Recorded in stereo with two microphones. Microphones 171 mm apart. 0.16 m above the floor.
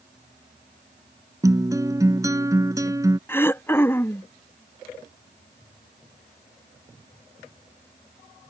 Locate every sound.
1.4 s a guitar: 20° right (ahead or behind)
3.3 s throat clearing: 15° left (ahead or behind)